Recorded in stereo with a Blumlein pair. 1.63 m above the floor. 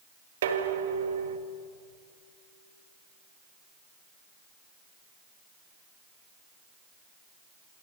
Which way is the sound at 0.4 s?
60° right.